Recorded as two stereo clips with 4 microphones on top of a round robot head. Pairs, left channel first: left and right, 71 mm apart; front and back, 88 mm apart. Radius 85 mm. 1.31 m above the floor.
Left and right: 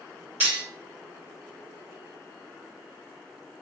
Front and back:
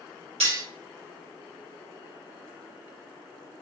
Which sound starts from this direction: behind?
Cutlery clinking, at 0.4 s.